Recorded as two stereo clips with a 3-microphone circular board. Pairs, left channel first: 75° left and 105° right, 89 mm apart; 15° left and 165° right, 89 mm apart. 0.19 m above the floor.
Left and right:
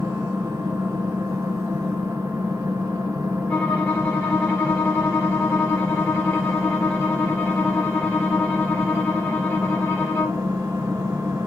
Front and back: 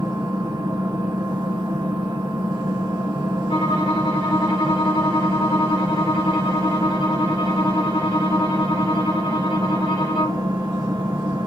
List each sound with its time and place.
0.0 s an engine running: 155° right, 1.9 m
3.5 s a violin: 5° left, 3 m